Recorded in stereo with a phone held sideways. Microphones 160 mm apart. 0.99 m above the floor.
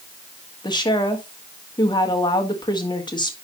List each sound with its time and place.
0.6 s a woman speaking: 30° left (ahead or behind), 1.5 m